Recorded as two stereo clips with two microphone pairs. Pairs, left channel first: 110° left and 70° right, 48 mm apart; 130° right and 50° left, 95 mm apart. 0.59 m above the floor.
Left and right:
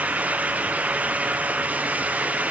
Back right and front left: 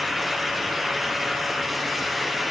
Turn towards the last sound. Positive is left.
No sound to turn to.